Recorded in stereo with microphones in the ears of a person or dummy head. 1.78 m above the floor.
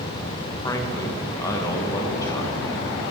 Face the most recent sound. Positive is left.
turn(degrees=20)  # may be behind; listen again after turning